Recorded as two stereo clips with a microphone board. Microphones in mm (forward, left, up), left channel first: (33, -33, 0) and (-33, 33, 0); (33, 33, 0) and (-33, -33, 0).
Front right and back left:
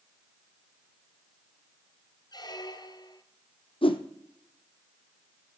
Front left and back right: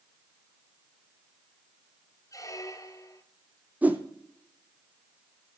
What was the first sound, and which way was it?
A squeak, 5° right.